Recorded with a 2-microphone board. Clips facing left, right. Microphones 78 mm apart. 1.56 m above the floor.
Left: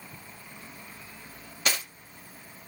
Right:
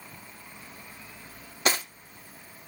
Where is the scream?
I don't hear a scream.